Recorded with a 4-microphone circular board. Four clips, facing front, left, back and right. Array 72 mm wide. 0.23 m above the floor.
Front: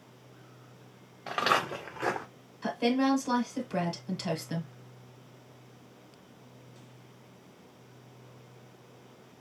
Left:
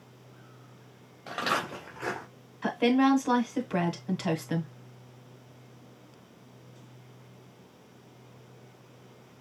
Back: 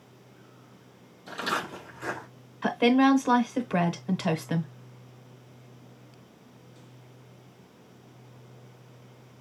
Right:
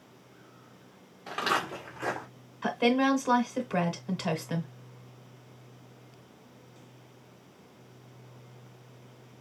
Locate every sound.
1.3 s footsteps: straight ahead, 3.5 m
2.6 s a woman speaking: straight behind, 1.5 m